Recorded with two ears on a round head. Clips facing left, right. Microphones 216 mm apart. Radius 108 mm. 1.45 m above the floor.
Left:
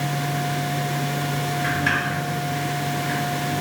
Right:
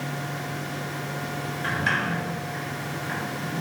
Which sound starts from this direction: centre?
A sliding door, at 1.6 s.